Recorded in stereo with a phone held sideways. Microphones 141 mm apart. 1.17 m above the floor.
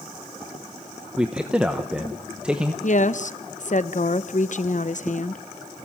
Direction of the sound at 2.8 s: 60° left (ahead or behind).